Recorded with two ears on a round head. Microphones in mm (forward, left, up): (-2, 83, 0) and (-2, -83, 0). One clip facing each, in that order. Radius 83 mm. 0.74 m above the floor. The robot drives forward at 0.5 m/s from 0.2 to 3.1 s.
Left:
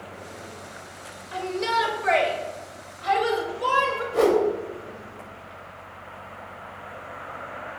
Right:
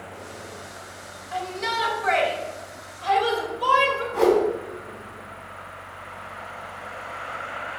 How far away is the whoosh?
About 2.5 m.